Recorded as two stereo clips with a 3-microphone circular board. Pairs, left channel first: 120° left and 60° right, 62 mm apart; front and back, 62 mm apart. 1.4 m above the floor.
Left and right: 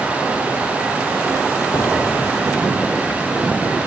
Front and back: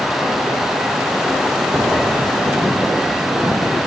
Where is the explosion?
120° left, 0.5 m.